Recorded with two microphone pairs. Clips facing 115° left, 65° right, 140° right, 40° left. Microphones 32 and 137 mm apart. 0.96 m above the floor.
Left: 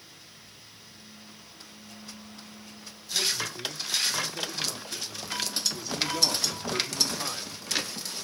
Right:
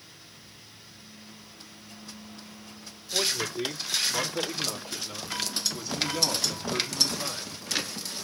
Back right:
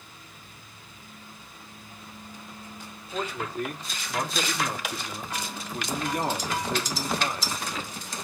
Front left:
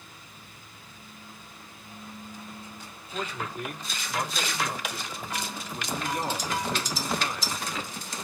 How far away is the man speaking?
About 2.5 m.